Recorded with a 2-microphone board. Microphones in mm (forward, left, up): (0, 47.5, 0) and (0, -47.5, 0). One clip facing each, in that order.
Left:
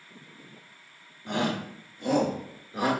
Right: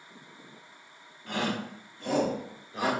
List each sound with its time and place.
1.3 s a shout: 20° left (ahead or behind), 0.7 m; by 2.9 s 15° left (ahead or behind), 1.2 m